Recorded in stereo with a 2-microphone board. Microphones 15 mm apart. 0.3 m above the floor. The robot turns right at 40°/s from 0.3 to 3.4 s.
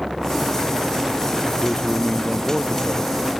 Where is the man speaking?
80° left; by 3.3 s 145° left.